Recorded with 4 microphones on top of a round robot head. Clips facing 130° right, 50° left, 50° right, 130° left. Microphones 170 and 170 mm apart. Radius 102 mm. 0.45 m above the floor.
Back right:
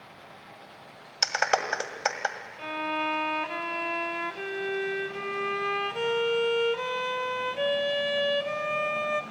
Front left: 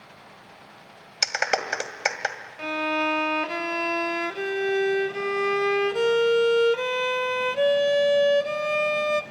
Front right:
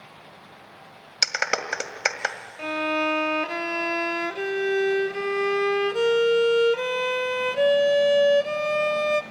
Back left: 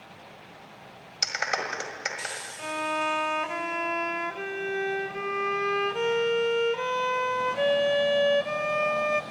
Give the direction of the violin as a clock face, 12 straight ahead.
12 o'clock.